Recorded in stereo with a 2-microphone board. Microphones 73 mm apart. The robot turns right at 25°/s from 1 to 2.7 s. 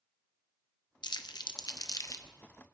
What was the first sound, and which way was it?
Crumpling, 65° left (ahead or behind).